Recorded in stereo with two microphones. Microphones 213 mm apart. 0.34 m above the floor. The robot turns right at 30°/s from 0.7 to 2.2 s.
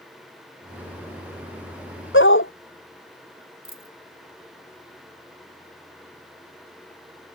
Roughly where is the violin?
I don't hear a violin.